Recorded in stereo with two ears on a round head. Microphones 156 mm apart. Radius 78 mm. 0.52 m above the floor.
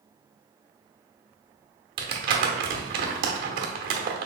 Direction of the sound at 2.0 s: 50° right (ahead or behind).